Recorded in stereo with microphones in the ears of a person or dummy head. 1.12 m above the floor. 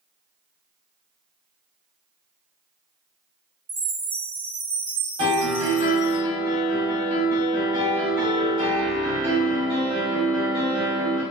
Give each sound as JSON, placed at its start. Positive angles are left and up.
{"t": 3.7, "sound": "a chime", "side_deg": 0, "distance_m": 1.5}
{"t": 5.2, "sound": "a piano", "side_deg": -25, "distance_m": 1.7}